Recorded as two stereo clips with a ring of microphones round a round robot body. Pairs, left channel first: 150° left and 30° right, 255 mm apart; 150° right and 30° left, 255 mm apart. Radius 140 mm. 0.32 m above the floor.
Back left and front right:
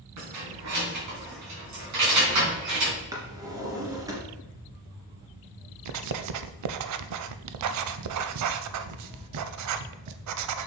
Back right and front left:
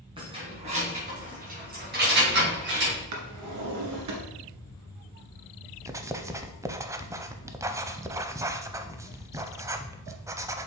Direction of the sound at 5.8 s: 50° right.